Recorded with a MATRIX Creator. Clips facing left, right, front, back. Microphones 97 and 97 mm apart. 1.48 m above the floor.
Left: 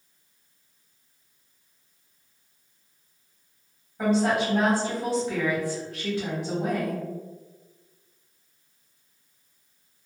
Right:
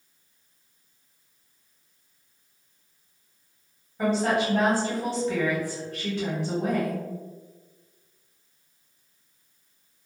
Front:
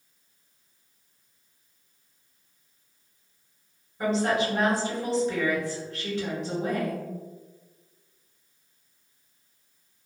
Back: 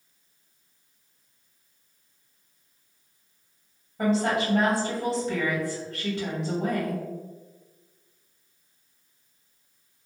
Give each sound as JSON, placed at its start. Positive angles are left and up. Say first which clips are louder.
{"t": 4.0, "sound": "a woman speaking", "louder": "left 1 dB, back 1 dB", "azimuth_deg": 175, "distance_m": 1.6}